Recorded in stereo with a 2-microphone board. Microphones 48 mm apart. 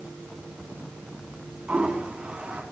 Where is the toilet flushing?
30° right (ahead or behind), 3 m.